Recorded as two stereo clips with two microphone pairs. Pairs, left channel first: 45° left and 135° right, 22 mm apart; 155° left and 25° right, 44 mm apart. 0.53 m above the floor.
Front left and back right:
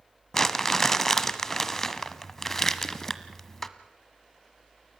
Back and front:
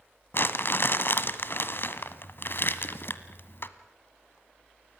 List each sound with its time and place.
0.3 s crumpling: 120° left, 1.2 m